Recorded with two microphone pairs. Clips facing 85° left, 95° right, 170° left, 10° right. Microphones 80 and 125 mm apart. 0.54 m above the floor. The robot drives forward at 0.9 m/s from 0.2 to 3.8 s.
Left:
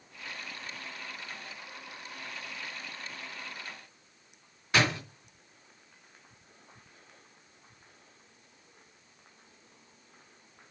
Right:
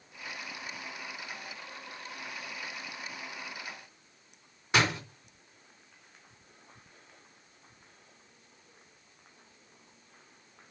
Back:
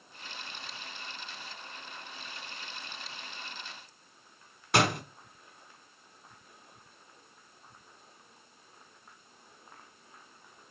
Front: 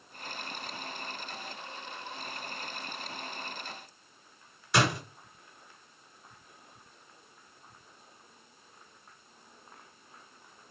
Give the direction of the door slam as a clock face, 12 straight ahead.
5 o'clock.